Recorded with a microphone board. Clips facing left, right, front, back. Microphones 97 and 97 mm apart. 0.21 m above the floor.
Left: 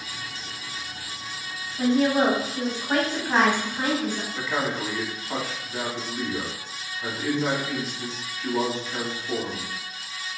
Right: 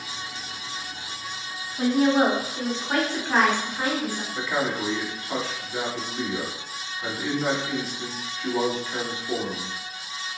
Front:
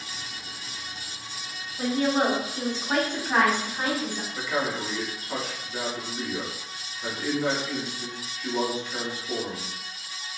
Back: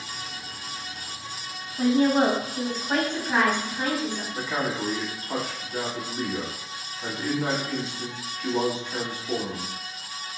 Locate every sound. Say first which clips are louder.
1.8 s a woman speaking: right 1 dB, back 4 dB; 145° right, 1.2 m; by 4.2 s 55° left, 1.4 m
4.3 s a man speaking: right 1 dB, front 2 dB; 175° left, 1.2 m